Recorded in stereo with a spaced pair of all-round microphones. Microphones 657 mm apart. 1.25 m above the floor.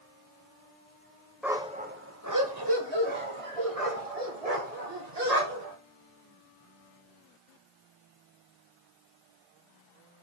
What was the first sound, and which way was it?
A dog barking, centre (ahead or behind).